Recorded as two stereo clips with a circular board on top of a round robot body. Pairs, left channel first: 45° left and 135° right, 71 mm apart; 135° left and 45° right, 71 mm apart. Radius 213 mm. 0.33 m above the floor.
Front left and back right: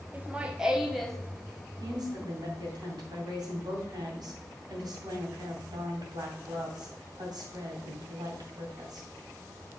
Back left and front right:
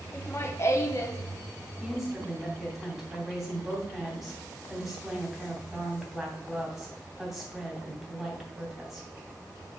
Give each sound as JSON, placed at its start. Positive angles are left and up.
{"t": 0.1, "sound": "laughter", "azimuth_deg": 170, "distance_m": 1.4}
{"t": 1.8, "sound": "a woman speaking", "azimuth_deg": -130, "distance_m": 3.0}